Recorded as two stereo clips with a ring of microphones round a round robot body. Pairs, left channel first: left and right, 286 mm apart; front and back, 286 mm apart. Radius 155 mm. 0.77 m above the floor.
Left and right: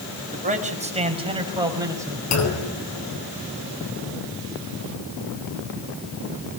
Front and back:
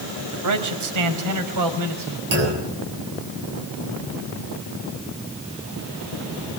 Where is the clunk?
120° left, 9 m.